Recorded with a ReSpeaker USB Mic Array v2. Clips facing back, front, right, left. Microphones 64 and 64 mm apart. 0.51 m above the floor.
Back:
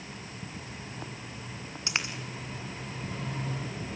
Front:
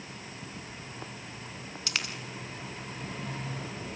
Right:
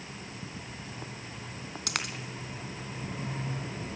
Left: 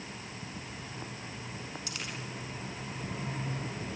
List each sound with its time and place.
1.9 s a dropped coin: 115° right, 3 m